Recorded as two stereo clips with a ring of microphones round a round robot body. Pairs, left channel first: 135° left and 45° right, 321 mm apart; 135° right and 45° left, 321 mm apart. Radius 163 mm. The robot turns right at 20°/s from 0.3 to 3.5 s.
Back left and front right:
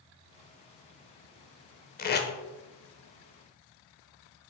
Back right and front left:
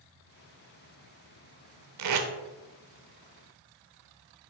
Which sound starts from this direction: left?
Tape being pulled, at 2.0 s.